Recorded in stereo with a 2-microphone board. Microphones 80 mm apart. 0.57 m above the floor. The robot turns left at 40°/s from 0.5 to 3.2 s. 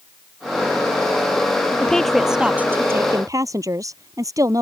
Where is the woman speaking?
15° left; by 4.6 s 45° right.